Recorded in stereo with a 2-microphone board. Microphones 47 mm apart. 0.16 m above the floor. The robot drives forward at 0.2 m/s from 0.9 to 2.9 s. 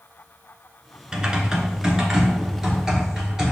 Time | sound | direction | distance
1.1 | typing on a keyboard | 20° right (ahead or behind) | 0.7 m